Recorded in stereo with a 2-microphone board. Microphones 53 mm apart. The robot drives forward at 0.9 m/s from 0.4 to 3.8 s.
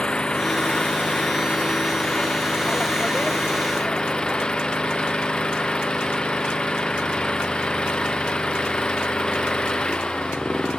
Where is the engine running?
20° left (ahead or behind); by 10.8 s 15° left (ahead or behind).